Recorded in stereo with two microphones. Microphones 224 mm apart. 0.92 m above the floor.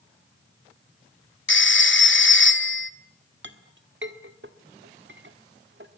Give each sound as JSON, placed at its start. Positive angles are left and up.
{"t": 1.5, "sound": "a phone ringing", "side_deg": 60, "distance_m": 1.3}
{"t": 3.4, "sound": "a clink", "side_deg": -55, "distance_m": 1.7}